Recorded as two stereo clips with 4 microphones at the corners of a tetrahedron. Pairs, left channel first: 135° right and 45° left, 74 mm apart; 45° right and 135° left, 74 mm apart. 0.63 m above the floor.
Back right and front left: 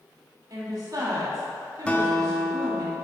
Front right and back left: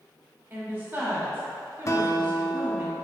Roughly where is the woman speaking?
Left.